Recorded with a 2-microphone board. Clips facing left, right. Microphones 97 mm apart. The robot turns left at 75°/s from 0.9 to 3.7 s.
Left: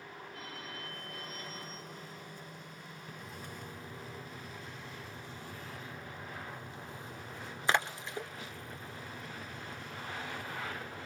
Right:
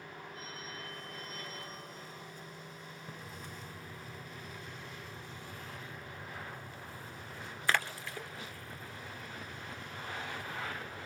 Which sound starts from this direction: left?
A phone ringing, at 0.3 s.